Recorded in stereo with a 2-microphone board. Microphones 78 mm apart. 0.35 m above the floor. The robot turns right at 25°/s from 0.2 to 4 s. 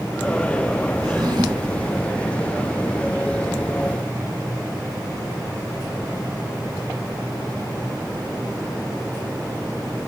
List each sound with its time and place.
1.0 s a drawer: 55° right (ahead or behind), 1.8 m; by 1.8 s 75° right (ahead or behind), 1.8 m